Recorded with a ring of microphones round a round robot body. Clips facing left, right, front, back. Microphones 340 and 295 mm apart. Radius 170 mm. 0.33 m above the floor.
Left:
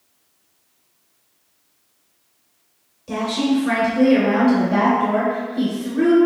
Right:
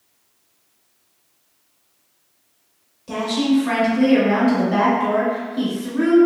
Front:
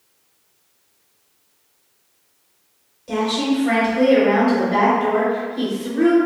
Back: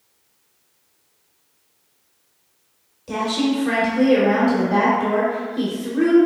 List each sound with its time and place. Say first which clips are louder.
3.1 s a woman speaking: right 1 dB, front 1 dB; 160° right, 0.8 m